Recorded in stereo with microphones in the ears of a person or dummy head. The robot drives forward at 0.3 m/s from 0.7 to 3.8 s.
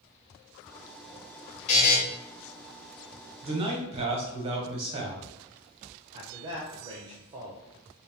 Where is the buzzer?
40° left (ahead or behind), 1.0 m; by 2.0 s 45° left (ahead or behind), 0.9 m.